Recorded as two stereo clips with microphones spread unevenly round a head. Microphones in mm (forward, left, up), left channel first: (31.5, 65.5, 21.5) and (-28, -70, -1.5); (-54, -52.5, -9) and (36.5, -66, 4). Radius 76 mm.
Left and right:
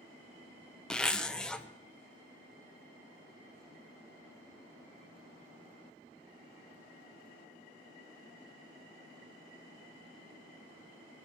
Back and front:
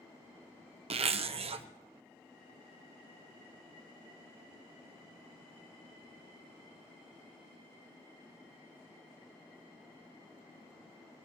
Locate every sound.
0.9 s a zipper: 20° right, 0.8 m